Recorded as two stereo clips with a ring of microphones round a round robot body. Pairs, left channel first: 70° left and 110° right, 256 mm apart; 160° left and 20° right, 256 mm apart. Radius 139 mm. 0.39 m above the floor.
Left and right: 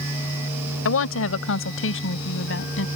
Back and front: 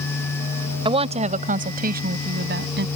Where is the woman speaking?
45° left; by 2.9 s 25° left.